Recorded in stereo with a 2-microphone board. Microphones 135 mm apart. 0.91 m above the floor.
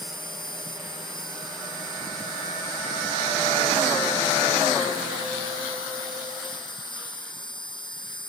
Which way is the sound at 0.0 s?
35° left (ahead or behind).